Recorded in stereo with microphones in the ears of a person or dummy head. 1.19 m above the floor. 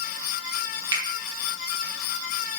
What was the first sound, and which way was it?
A finger snap, 20° right (ahead or behind).